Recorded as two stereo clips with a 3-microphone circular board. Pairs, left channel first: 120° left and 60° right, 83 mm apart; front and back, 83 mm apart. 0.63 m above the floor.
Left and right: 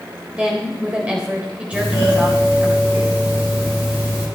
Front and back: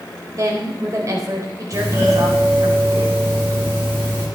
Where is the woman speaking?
135° right, 3.5 m.